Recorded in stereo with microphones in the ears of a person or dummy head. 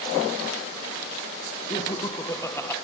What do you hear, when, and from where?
1.7 s laughter: 20° left (ahead or behind), 1.5 m; by 2.8 s 5° left (ahead or behind), 1.0 m